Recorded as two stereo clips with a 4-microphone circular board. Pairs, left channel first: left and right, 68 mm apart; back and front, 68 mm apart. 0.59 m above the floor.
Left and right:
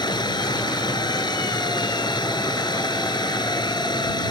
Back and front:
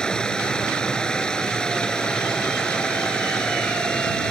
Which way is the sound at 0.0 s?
100° left.